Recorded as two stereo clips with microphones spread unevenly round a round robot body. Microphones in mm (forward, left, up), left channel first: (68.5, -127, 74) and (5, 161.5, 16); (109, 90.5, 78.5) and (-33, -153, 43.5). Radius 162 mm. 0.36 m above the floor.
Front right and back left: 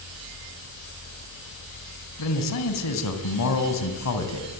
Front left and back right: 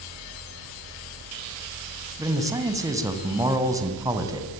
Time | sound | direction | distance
2.2 | a man speaking | 45° right | 3 m